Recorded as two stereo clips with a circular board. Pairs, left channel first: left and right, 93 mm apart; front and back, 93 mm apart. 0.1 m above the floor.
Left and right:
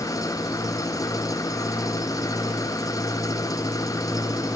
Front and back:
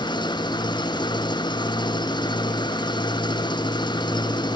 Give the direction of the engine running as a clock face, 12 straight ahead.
11 o'clock.